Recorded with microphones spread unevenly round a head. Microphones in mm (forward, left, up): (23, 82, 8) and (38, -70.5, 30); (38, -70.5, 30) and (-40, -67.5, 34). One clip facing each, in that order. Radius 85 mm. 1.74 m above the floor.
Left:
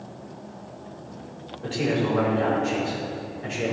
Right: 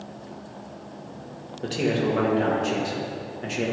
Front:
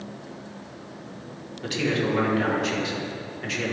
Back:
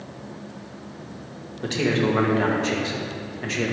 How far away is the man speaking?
About 1.8 m.